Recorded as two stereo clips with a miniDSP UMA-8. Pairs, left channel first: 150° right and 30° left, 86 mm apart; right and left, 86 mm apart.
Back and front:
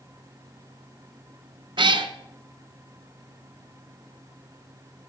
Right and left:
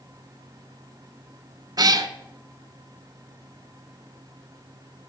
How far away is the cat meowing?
About 0.5 m.